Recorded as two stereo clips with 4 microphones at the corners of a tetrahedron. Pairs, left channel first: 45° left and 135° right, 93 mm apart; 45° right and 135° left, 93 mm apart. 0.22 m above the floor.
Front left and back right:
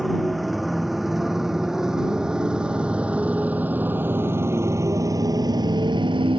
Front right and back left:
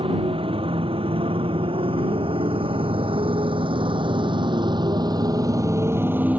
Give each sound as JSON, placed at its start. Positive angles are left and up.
{"t": 0.0, "sound": "a motorcycle", "azimuth_deg": 135}